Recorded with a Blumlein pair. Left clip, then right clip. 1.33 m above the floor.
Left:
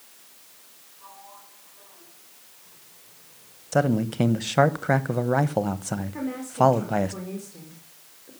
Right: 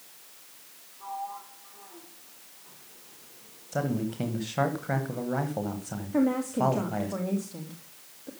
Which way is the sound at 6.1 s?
40° right.